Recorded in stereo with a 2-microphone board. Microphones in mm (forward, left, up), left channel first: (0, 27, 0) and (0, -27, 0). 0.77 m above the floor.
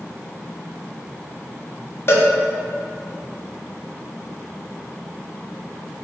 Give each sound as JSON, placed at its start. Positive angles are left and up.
{"t": 2.1, "sound": "a cowbell", "side_deg": 50, "distance_m": 0.5}